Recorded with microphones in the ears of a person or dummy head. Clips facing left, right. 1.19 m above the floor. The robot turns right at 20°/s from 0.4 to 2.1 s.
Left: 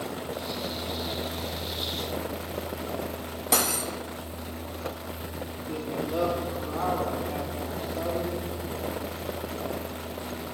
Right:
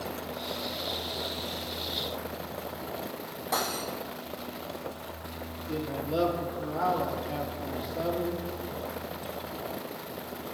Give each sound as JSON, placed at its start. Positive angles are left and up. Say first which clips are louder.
{"t": 3.5, "sound": "cutlery clinking", "louder": "left 3 dB", "side_deg": 40, "distance_m": 0.8}
{"t": 5.7, "sound": "a man speaking", "louder": "left 1 dB", "side_deg": -5, "distance_m": 2.0}